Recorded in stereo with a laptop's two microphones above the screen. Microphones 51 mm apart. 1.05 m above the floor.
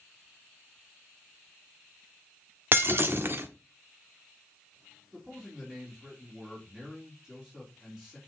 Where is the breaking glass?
45° right (ahead or behind), 1.2 m.